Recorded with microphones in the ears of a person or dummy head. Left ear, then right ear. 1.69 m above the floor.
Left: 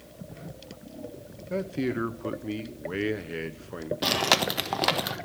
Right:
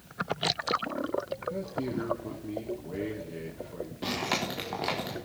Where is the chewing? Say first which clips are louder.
Left 8 dB; 45° left (ahead or behind), 1.5 m.